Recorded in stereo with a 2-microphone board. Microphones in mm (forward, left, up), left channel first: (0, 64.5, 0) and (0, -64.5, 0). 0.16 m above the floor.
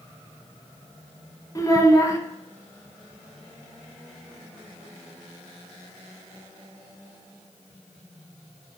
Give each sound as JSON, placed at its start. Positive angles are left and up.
{"t": 1.6, "sound": "a child speaking", "side_deg": 25, "distance_m": 1.1}